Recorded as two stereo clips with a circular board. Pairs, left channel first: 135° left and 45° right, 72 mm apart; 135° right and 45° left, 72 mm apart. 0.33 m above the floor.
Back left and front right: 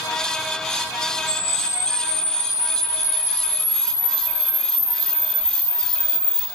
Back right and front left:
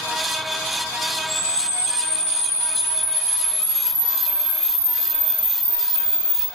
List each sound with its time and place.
1.3 s a camera shutter: 90° left, 1.4 m